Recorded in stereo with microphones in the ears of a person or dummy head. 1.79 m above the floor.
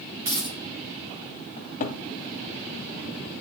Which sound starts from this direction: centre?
A dropped coin, at 0.2 s.